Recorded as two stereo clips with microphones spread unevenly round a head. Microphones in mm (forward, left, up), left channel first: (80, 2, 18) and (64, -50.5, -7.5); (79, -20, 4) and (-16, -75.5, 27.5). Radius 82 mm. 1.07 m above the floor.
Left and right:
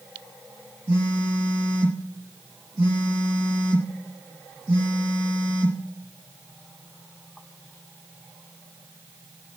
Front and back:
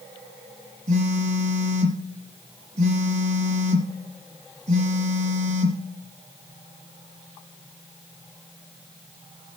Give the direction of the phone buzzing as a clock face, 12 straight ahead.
5 o'clock.